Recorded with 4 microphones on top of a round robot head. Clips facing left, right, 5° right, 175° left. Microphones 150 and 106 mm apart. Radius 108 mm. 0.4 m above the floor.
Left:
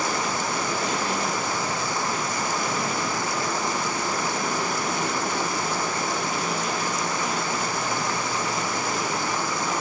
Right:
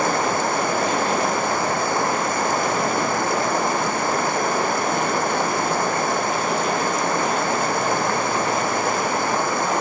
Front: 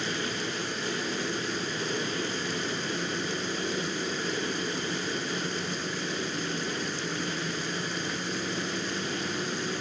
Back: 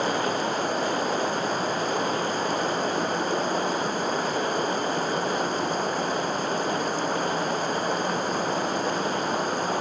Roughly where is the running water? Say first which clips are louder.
Right 6 dB, back 8 dB; behind right.